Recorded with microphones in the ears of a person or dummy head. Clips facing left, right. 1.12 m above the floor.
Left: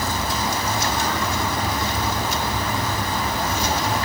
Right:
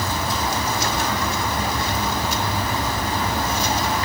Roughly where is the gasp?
No gasp in this recording.